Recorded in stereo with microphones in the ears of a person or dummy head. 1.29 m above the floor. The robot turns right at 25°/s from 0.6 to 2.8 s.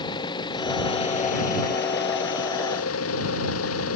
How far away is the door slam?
No door slam in this recording.